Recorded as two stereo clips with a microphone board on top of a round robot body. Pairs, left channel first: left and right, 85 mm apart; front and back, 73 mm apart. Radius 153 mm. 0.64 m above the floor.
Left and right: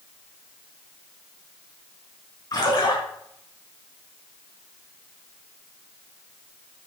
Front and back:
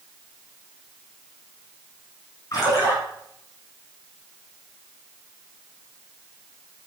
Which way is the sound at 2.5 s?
50° left.